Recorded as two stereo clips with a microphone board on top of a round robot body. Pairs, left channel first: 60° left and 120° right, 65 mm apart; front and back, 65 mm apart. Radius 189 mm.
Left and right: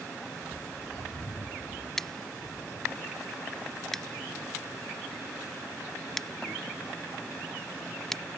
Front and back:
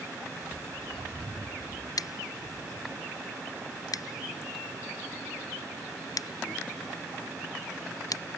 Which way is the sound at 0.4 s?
105° left.